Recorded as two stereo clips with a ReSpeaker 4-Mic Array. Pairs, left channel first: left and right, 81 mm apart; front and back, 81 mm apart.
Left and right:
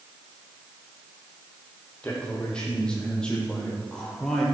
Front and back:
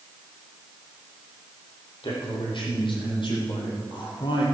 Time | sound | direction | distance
2.0 | a man speaking | 10° left | 5 m